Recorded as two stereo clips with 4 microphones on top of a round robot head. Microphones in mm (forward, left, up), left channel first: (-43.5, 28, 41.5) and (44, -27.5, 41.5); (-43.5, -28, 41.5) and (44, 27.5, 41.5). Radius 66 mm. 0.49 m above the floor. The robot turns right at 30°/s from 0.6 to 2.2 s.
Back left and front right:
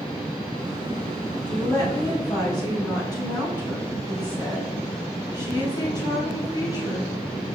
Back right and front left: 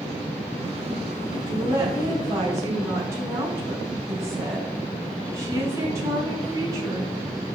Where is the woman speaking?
75° left, 3 m; by 7.1 s 95° left, 3 m.